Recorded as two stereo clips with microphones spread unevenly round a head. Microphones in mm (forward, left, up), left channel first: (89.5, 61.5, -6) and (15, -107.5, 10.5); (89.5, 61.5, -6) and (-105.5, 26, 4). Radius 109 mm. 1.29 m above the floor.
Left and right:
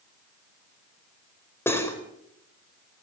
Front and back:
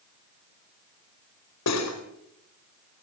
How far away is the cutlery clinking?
About 4 m.